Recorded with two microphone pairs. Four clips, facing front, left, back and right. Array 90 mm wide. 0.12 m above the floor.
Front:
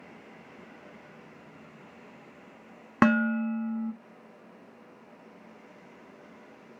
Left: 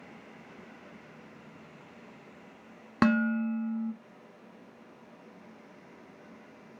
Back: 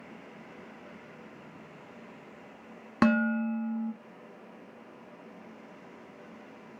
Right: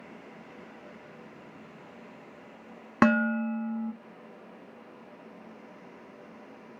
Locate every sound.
3.0 s dishes clattering: 35° right, 0.8 m